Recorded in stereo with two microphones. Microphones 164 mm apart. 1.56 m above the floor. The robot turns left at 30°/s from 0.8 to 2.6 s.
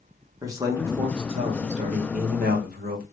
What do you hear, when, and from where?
0.4 s a man speaking: 20° right, 1.3 m; by 3.0 s 75° right, 1.3 m